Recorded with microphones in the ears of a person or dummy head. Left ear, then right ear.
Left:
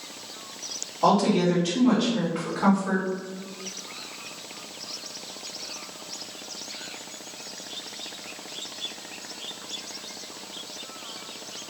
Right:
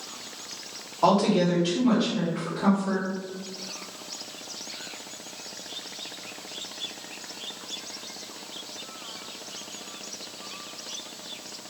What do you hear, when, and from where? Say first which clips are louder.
1.0 s a woman speaking: even; 20° right (ahead or behind), 1.2 m; by 3.1 s 45° left (ahead or behind), 1.3 m